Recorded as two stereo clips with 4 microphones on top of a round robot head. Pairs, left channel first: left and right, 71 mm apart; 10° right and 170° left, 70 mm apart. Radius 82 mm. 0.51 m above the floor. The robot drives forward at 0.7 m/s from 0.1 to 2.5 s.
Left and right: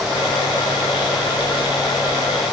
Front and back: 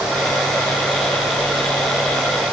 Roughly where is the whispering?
I don't hear whispering.